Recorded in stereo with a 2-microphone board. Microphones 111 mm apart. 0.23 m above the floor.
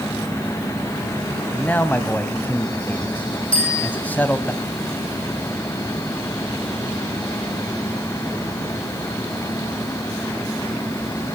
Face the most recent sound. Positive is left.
turn(degrees=10)  # may be behind; listen again after turning